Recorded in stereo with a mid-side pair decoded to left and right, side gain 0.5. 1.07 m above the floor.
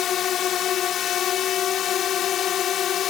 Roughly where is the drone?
Ahead left.